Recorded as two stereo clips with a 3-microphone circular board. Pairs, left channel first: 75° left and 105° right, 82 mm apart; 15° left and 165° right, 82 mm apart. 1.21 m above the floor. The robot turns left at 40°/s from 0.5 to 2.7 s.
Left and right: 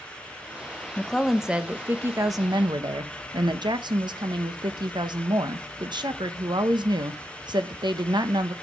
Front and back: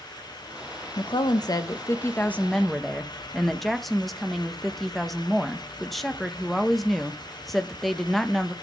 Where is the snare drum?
I don't hear a snare drum.